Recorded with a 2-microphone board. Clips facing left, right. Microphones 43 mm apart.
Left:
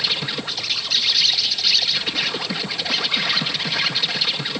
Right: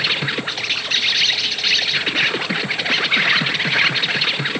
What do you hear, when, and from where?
0.0 s an insect: 35° right (ahead or behind), 1.6 m